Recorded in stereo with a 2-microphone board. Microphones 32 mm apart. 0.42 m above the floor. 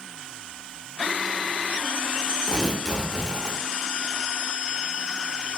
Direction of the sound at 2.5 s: 10° right (ahead or behind).